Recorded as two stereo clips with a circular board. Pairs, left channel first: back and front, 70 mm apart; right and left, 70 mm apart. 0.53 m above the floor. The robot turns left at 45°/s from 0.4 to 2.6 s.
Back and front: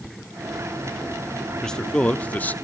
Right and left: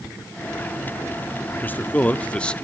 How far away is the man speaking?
About 0.7 m.